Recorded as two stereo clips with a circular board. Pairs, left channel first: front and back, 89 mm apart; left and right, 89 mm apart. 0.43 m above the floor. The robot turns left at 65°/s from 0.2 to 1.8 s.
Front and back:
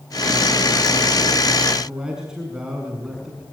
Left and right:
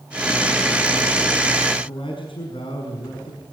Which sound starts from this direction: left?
A man speaking, at 1.7 s.